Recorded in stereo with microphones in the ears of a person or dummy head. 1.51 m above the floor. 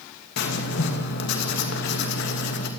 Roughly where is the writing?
Left.